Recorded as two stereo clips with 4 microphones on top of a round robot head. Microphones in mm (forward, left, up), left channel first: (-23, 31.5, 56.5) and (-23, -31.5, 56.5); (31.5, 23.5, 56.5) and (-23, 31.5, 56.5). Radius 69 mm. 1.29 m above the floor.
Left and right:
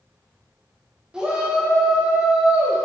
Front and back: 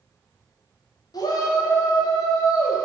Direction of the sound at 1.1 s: 10° right.